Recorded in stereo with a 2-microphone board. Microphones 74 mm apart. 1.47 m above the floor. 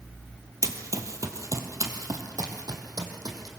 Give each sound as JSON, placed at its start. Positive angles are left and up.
{"t": 0.6, "sound": "running footsteps", "side_deg": -40, "distance_m": 1.8}